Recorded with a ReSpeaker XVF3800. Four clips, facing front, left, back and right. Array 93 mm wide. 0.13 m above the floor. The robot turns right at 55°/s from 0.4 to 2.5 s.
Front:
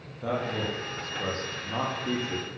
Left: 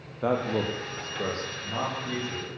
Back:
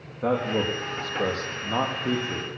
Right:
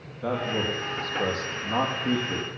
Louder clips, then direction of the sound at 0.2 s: Left 1 dB, back 5 dB; 125° left.